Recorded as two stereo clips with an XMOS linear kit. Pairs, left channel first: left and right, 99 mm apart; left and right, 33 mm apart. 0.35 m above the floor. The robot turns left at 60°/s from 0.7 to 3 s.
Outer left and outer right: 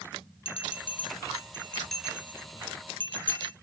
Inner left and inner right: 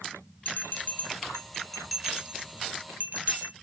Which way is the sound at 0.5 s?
75° left (ahead or behind).